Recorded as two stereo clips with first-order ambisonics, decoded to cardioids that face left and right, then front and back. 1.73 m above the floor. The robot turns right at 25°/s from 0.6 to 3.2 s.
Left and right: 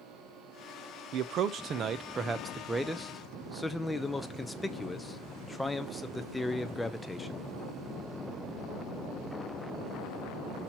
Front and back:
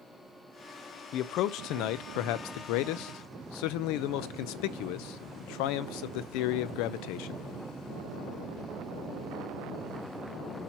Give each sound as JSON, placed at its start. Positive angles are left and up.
{"t": 1.1, "sound": "a man speaking", "azimuth_deg": -45, "distance_m": 0.6}